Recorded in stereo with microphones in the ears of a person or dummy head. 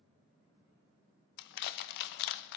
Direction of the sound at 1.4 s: 60° left (ahead or behind).